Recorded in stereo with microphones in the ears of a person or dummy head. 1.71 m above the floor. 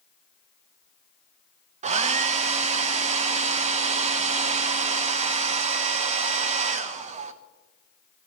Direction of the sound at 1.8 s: 35° right (ahead or behind).